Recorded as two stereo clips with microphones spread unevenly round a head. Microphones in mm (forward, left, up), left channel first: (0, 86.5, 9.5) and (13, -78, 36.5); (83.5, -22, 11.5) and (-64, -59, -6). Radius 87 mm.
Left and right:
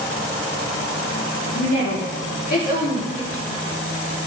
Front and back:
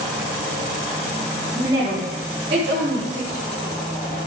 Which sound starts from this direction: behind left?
A woman speaking, at 1.6 s.